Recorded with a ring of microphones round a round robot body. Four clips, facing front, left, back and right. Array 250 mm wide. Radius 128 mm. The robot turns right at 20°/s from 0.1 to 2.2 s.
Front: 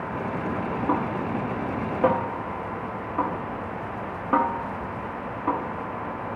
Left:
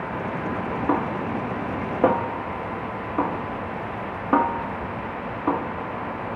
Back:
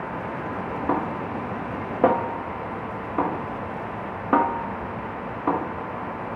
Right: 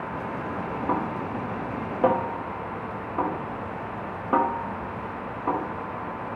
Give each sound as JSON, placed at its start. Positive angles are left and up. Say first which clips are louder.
{"t": 0.9, "sound": "a snare drum", "louder": "left 4 dB, back 1 dB", "azimuth_deg": 120, "distance_m": 1.2}